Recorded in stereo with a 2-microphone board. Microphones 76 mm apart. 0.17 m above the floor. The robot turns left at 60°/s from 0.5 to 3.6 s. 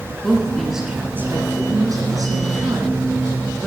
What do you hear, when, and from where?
0.2 s a woman speaking: 10° left, 1.8 m; by 3.7 s straight behind, 1.8 m